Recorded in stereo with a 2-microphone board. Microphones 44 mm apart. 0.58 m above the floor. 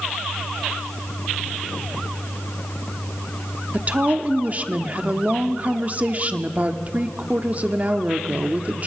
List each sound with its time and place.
3.7 s a woman speaking: 35° right (ahead or behind), 1.1 m